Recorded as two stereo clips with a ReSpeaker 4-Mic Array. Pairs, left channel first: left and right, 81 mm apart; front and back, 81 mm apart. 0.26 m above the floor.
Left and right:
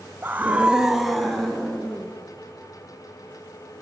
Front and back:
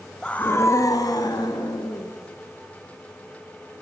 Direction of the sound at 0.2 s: 65° right.